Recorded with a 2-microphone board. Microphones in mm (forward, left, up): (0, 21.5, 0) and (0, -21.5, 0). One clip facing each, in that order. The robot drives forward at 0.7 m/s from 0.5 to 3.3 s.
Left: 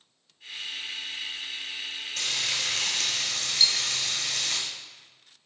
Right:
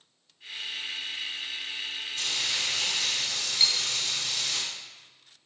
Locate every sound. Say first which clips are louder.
2.2 s frying: left 1 dB; 80° left, 5.5 m; by 4.6 s 85° left, 5.5 m
3.6 s cutlery clinking: left 2 dB; 30° right (ahead or behind), 2.5 m